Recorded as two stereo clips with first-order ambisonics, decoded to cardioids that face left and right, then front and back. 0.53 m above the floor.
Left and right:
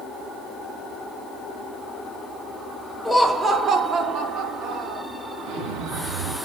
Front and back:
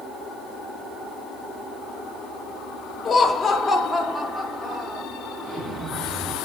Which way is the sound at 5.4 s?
105° right.